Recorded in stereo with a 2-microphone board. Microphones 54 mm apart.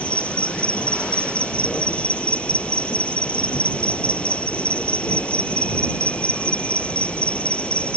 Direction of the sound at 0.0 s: 20° left (ahead or behind).